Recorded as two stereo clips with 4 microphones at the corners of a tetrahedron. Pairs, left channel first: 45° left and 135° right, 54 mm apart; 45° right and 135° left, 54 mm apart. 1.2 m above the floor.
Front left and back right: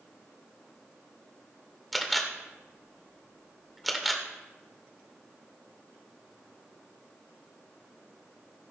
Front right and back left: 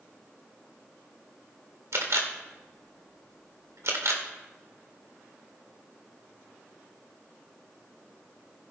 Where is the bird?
No bird in this recording.